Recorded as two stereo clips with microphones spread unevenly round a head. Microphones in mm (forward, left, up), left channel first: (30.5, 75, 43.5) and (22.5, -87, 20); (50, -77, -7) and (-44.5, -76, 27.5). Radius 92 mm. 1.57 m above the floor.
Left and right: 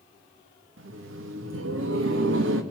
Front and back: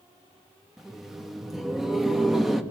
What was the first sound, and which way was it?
Laughter, 100° right.